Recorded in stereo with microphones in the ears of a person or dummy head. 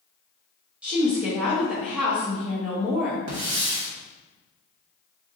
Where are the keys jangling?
I don't hear keys jangling.